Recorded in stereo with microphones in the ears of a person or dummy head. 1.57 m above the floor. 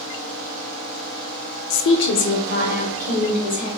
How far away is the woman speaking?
About 0.5 m.